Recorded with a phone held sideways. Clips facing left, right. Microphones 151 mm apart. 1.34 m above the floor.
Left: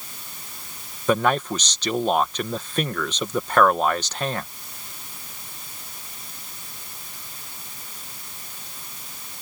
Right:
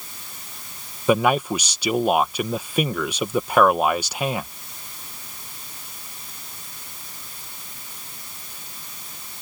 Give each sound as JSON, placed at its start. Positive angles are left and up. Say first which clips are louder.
{"t": 1.1, "sound": "a man speaking", "louder": "right 2 dB", "side_deg": -10}